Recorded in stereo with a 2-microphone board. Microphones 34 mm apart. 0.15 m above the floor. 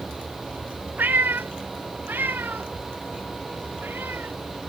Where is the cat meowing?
70° right (ahead or behind); by 4.3 s 85° right.